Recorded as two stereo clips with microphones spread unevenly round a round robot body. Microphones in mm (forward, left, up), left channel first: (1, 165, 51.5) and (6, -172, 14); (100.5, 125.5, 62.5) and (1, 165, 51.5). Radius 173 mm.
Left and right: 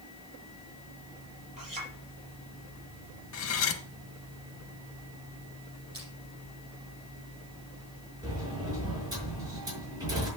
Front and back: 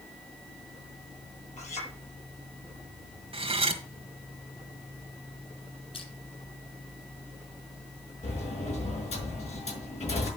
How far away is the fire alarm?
I don't hear a fire alarm.